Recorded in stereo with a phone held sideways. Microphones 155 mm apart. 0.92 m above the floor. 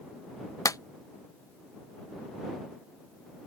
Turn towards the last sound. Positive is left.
turn(degrees=20)  # may be behind; listen again after turning